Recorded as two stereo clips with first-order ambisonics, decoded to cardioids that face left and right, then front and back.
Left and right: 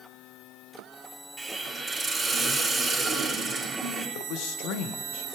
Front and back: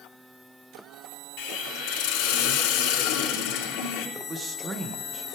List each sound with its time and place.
1.4 s a hiss: 10° right, 3 m
4.2 s a man speaking: 110° left, 1.5 m